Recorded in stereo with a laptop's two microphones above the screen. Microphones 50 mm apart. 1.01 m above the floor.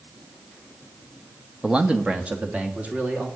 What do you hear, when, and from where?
1.6 s a man speaking: 15° right (ahead or behind), 0.8 m; by 3.3 s 30° right (ahead or behind), 2.5 m